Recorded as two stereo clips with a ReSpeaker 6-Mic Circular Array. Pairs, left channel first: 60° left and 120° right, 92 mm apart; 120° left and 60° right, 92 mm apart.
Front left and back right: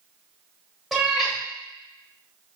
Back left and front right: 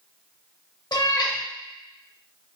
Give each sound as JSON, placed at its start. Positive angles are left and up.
{"t": 0.9, "sound": "a cat meowing", "azimuth_deg": 155, "distance_m": 0.7}